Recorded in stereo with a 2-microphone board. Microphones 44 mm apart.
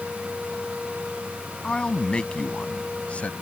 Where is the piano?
No piano in this recording.